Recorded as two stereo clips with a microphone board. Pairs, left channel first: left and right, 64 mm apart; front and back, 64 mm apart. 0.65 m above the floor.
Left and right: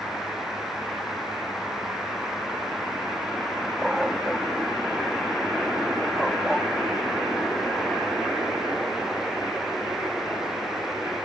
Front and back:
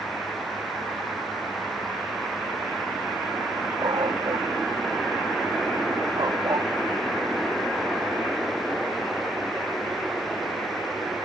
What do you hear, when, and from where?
3.8 s a dog barking: 175° right; by 6.7 s straight behind